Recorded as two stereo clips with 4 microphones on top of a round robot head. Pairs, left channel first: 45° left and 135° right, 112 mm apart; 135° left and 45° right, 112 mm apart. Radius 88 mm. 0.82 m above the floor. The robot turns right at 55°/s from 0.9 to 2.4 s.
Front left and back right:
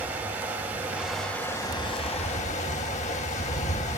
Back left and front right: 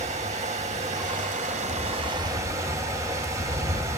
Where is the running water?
60° right, 3.5 m; by 4.0 s 20° left, 3.5 m.